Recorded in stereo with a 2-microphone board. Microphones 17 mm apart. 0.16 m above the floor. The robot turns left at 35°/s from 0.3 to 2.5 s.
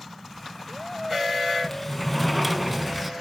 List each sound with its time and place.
1.6 s a sliding door: 25° left, 0.7 m; by 3.1 s 5° right, 0.7 m